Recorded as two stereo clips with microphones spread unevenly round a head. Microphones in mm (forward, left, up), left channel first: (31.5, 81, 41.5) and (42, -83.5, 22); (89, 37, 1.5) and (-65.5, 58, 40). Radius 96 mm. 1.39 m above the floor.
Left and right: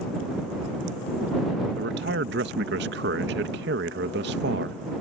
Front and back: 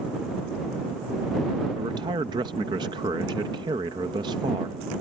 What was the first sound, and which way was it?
A man speaking, 120° right.